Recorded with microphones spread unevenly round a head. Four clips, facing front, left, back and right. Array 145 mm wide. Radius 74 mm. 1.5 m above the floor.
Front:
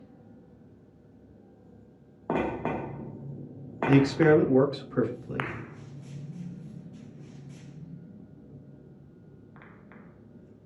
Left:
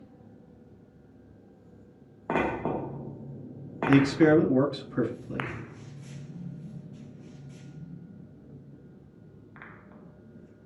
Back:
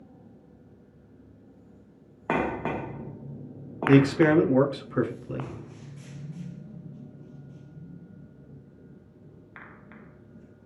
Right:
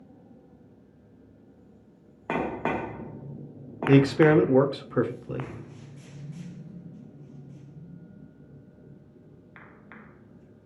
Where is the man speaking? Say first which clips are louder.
Right 2 dB, back 1 dB; 105° right, 0.8 m.